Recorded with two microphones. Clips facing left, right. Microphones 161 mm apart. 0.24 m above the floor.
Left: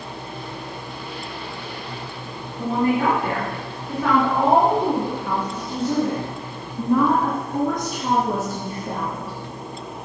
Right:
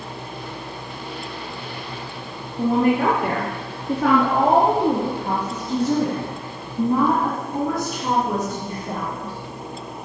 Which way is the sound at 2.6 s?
70° right (ahead or behind).